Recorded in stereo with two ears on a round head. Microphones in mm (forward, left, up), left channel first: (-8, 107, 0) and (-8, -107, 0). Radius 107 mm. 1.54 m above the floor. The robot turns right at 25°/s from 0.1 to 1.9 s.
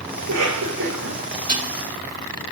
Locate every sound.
0.2 s a cough: 70° right (ahead or behind), 4 m; by 1.2 s 80° right, 4 m
1.5 s dishes clattering: 35° right (ahead or behind), 2 m; by 1.7 s 30° right (ahead or behind), 2 m